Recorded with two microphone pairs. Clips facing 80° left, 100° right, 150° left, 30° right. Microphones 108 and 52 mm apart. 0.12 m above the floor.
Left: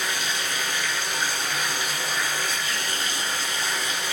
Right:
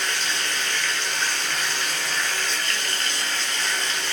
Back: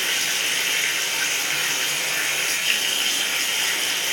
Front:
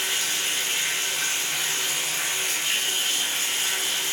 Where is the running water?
160° left, 2.5 m.